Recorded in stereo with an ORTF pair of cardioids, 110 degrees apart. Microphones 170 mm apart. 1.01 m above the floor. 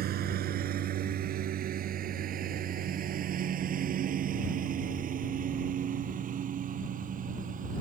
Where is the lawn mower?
65° right; by 7.8 s 50° right.